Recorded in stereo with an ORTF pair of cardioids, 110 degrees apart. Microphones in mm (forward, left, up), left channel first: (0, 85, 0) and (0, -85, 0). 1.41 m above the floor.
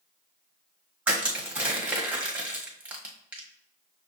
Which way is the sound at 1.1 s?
5° right.